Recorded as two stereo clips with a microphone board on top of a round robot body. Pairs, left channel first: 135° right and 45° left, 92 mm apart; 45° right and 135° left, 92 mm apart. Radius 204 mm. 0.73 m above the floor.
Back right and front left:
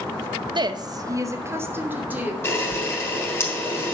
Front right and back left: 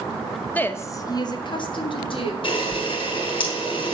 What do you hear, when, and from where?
0.6 s a woman speaking: 25° left, 1.2 m; by 2.3 s 30° right, 2.5 m
2.4 s a camera shutter: 70° right, 5 m